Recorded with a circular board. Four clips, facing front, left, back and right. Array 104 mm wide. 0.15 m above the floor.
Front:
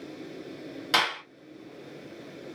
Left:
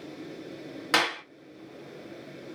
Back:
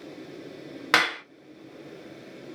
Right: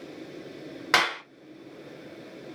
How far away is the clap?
About 1.9 m.